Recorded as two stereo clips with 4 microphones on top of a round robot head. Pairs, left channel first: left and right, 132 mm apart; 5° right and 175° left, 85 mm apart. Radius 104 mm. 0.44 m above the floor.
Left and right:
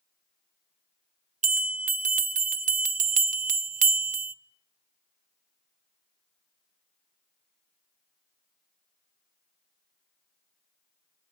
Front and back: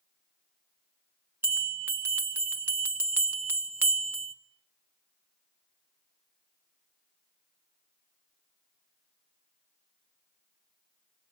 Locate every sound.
1.4 s a bell: 115° right, 1.3 m